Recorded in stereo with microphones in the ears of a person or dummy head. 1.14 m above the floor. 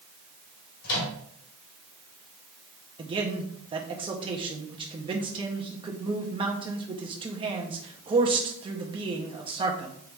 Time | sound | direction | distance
0.8 | a microwave | 85° left | 3 m
3.0 | a man speaking | 25° right (ahead or behind) | 0.8 m